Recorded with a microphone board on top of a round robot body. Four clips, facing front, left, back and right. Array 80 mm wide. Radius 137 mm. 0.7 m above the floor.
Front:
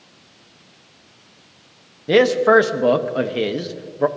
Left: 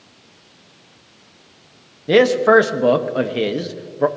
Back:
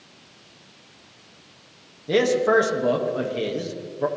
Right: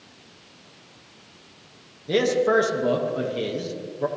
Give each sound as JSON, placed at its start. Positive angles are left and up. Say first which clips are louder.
{"t": 2.1, "sound": "a man speaking", "louder": "left 8 dB, front 5 dB", "azimuth_deg": 50, "distance_m": 1.1}